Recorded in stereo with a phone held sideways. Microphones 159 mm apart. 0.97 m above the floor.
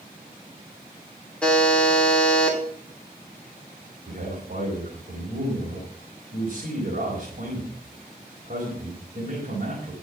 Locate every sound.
1.4 s a buzzer: 5° left (ahead or behind), 3 m
4.1 s a man speaking: 55° right (ahead or behind), 4 m